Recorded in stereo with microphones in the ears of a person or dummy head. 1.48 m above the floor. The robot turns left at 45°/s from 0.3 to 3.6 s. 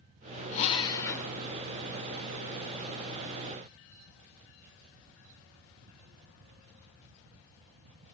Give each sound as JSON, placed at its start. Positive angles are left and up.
{"t": 0.5, "sound": "a drill", "azimuth_deg": 40, "distance_m": 2.5}